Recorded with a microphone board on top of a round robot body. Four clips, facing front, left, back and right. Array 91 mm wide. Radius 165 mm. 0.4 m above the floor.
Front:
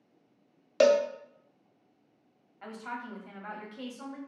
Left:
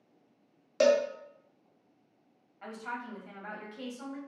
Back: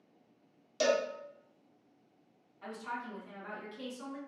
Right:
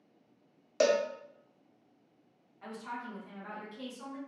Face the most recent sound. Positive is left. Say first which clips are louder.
# left 2 dB, front 1 dB
turn(degrees=25)